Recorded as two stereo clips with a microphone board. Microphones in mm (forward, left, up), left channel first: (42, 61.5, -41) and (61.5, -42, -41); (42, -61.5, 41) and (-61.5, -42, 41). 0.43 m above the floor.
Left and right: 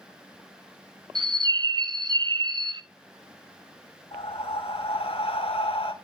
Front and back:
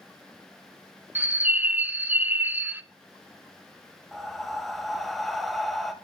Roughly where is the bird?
Behind right.